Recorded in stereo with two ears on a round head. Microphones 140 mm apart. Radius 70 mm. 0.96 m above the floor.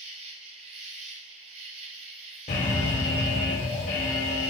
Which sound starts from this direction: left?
An alarm, at 2.5 s.